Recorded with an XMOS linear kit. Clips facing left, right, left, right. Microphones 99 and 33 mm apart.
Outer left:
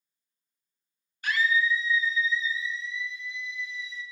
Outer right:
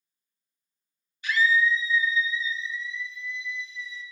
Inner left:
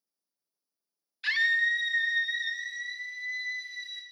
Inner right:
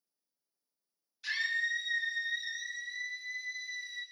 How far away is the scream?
About 1.1 m.